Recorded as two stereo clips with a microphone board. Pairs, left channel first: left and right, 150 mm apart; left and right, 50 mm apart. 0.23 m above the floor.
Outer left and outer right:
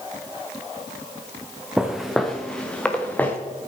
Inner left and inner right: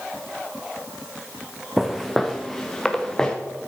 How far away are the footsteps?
About 1.4 m.